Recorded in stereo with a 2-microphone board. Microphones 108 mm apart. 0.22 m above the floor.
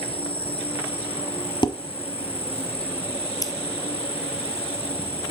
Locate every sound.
0.0 s an insect: 60° left (ahead or behind), 1.4 m
1.6 s dishes clattering: 45° left (ahead or behind), 1.0 m
3.4 s scissors: 35° left (ahead or behind), 1.2 m